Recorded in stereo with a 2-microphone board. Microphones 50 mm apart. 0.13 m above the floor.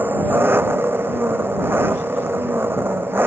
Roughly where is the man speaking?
I don't hear a man speaking.